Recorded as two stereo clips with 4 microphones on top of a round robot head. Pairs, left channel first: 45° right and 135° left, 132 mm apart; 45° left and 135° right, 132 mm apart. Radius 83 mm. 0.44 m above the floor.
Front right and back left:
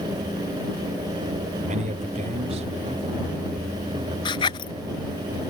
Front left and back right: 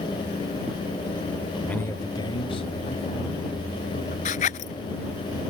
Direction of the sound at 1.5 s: 135° left.